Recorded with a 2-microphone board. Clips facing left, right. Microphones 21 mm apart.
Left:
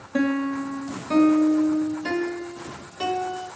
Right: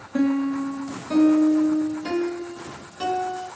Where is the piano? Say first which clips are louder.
Right 1 dB; 25° left (ahead or behind), 1.4 m.